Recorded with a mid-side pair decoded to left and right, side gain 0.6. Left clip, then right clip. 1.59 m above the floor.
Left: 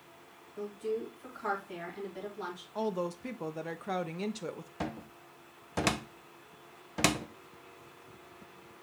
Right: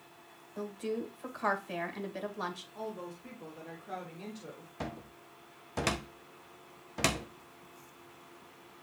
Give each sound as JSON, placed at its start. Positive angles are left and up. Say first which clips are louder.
{"t": 0.6, "sound": "a woman speaking", "louder": "left 1 dB", "azimuth_deg": -50, "distance_m": 2.0}
{"t": 2.8, "sound": "a woman speaking", "louder": "left 7 dB", "azimuth_deg": 55, "distance_m": 0.6}
{"t": 4.8, "sound": "a cupboard door", "louder": "left 2 dB", "azimuth_deg": 15, "distance_m": 0.7}